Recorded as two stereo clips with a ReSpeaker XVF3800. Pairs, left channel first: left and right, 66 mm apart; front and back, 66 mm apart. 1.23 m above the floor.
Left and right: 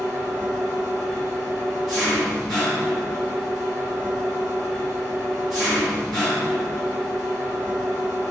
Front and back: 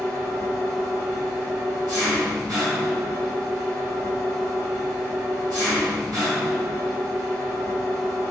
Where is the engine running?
175° left, 1.5 m.